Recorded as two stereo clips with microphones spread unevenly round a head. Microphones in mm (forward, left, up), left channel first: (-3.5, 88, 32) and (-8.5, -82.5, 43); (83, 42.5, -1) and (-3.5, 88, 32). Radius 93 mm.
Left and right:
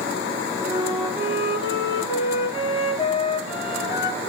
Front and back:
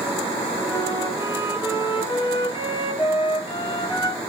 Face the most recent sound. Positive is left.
turn(degrees=25)